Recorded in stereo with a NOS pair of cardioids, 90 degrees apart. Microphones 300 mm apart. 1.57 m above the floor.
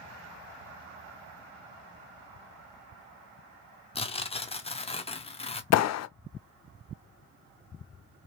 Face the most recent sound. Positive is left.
turn(degrees=60)